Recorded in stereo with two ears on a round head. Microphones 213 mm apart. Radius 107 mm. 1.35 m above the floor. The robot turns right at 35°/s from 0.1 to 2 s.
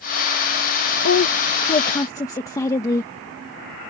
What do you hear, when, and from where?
1.0 s a woman speaking: 135° left; by 3.1 s 165° left